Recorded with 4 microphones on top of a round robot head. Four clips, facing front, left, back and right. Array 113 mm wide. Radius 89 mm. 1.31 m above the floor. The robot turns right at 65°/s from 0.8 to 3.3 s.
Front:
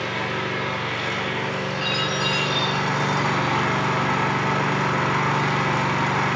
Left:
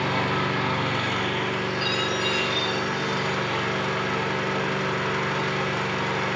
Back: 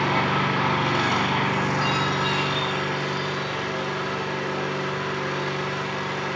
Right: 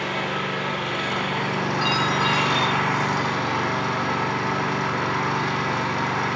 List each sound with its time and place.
0.0 s an engine running: 160° left, 4.5 m; by 6.4 s 35° right, 4.5 m
1.8 s a chime: 35° right, 3 m; by 3.6 s 60° left, 3 m